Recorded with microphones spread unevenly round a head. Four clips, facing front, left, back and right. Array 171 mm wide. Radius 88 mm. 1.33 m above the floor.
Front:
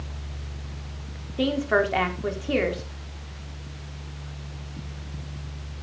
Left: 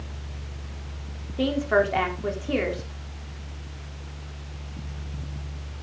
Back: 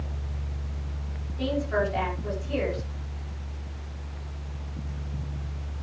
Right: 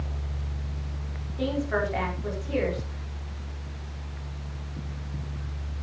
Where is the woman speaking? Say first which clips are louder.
Left 5 dB, front 4 dB; 35° left, 3.5 m.